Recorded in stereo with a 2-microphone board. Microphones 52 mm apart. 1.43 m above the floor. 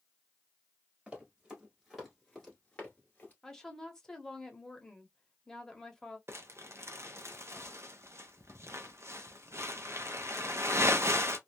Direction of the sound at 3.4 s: 10° left (ahead or behind).